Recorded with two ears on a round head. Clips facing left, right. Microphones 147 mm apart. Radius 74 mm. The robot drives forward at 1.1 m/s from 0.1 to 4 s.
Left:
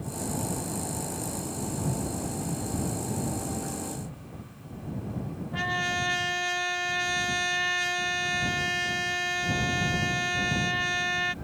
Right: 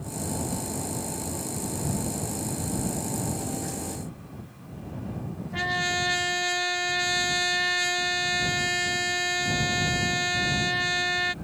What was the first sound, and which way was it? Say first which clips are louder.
A trumpet: right 2 dB; 20° right (ahead or behind).